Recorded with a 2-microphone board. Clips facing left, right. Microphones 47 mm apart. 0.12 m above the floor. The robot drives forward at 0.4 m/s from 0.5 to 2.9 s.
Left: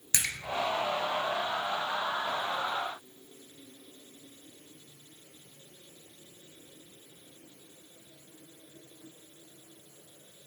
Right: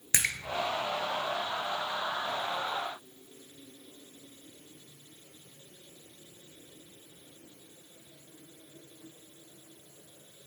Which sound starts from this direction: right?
A splash, at 0.1 s.